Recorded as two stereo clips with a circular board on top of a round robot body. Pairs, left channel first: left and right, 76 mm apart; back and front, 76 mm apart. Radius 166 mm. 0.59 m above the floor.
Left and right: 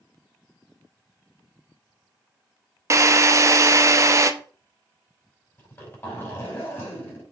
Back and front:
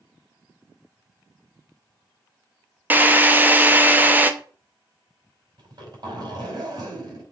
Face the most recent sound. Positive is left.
turn(degrees=35)